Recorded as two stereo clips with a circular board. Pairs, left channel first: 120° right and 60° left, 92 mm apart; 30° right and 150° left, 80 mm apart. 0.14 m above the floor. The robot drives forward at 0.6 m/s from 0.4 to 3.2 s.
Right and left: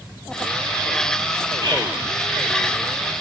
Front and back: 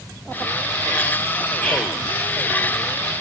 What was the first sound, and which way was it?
Whispering, 40° left.